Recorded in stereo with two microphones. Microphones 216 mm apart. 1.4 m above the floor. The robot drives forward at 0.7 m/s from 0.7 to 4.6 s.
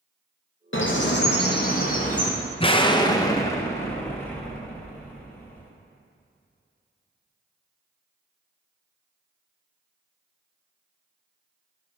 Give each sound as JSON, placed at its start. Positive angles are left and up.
{"t": 0.7, "sound": "a bird", "side_deg": 65, "distance_m": 1.0}
{"t": 2.6, "sound": "an explosion", "side_deg": 25, "distance_m": 0.5}